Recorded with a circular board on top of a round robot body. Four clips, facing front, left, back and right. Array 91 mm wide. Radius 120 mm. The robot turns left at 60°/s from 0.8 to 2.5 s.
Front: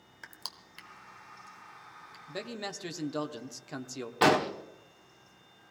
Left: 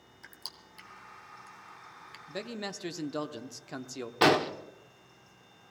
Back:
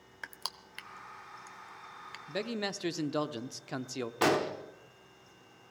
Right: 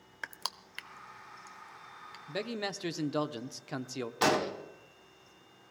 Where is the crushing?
110° right, 0.7 m; by 2.2 s 165° left, 0.7 m.